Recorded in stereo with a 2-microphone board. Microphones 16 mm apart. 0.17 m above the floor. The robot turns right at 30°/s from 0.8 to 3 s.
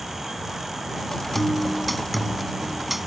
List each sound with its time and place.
1.4 s a guitar: 15° left (ahead or behind); by 3.1 s 5° right (ahead or behind)